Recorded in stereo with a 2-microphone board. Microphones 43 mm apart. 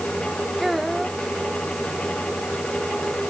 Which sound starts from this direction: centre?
A child speaking, at 0.6 s.